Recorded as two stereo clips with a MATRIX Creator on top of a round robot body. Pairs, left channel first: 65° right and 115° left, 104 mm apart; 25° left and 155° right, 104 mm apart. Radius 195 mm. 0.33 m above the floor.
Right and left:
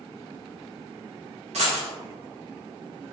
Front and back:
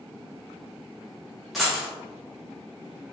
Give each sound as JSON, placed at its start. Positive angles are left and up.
{"t": 1.5, "sound": "a dropped coin", "azimuth_deg": 115, "distance_m": 0.6}